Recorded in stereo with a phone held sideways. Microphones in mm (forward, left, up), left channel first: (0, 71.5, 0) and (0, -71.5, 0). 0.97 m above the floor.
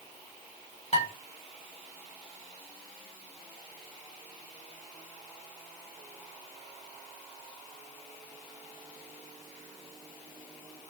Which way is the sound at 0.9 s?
50° left (ahead or behind).